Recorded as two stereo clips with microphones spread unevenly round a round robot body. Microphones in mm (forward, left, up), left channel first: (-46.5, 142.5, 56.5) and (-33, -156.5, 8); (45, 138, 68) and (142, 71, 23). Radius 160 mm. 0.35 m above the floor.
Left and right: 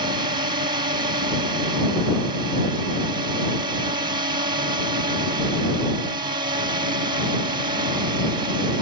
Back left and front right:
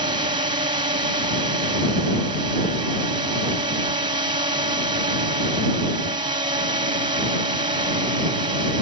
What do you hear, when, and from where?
0.0 s a drone: 20° right